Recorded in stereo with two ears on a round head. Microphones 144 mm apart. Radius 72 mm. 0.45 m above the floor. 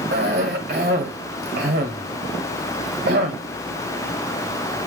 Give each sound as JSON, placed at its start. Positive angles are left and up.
{"t": 0.1, "sound": "a cough", "side_deg": -65, "distance_m": 1.9}